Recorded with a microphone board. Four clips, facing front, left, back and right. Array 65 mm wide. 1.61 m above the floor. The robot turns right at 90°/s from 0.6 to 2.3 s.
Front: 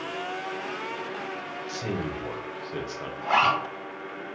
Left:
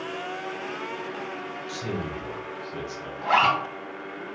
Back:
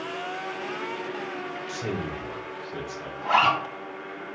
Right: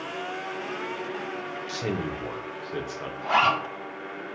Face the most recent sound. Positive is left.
turn(degrees=95)